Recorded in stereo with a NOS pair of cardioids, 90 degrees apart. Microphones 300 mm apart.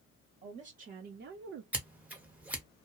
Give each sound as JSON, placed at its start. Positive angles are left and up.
{"t": 0.4, "sound": "a woman speaking", "azimuth_deg": -20, "distance_m": 1.2}
{"t": 1.7, "sound": "scissors", "azimuth_deg": -5, "distance_m": 1.2}